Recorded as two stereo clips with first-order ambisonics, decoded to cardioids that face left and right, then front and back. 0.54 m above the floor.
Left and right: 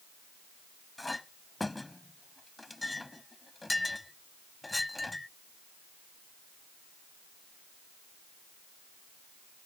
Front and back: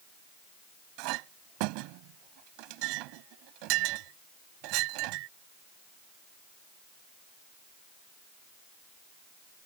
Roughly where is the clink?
Behind.